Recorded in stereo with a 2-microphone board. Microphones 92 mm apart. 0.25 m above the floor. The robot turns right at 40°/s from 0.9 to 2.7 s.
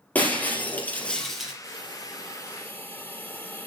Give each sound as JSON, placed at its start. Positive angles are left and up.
{"t": 0.1, "sound": "breaking glass", "side_deg": 20, "distance_m": 3.5}
{"t": 1.6, "sound": "a hiss", "azimuth_deg": 120, "distance_m": 2.0}